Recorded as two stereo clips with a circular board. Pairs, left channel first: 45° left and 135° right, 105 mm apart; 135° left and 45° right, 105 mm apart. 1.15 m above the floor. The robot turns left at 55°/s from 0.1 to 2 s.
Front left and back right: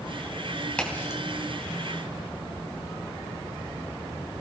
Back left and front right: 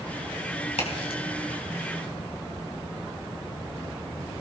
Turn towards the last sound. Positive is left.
turn(degrees=55)